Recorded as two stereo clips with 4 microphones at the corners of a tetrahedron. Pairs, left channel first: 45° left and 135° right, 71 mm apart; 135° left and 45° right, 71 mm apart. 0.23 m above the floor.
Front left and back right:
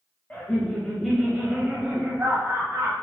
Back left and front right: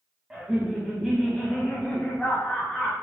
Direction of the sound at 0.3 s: 15° left.